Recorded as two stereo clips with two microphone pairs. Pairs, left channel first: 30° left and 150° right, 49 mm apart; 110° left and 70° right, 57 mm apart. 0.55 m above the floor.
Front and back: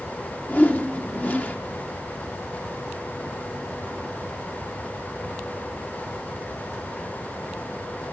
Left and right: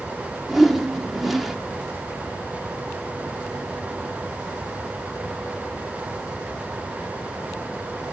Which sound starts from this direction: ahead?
A whoosh, at 0.5 s.